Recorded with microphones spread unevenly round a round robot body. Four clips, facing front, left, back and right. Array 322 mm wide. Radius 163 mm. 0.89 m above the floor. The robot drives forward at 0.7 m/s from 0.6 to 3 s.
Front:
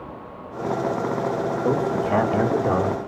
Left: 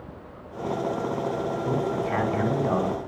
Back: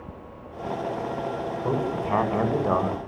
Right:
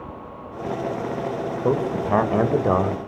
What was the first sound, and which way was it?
A man speaking, 70° right.